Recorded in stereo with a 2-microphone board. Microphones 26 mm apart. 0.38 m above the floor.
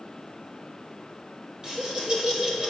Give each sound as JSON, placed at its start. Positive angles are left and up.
{"t": 1.6, "sound": "laughter", "side_deg": -25, "distance_m": 1.5}